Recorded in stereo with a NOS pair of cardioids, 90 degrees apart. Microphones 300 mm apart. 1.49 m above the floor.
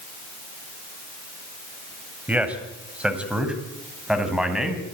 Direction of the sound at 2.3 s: 5° right.